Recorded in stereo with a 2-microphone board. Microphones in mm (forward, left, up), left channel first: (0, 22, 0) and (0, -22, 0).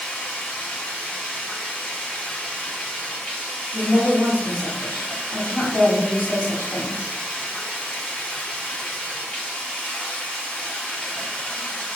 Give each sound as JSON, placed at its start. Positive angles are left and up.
{"t": 0.0, "sound": "running water", "side_deg": 20, "distance_m": 1.2}
{"t": 3.7, "sound": "a woman speaking", "side_deg": 45, "distance_m": 2.0}